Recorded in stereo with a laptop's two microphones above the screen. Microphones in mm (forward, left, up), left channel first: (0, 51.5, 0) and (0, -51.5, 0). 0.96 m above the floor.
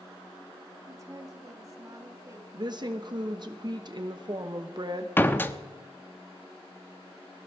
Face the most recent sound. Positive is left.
turn(degrees=20)  # may be behind; listen again after turning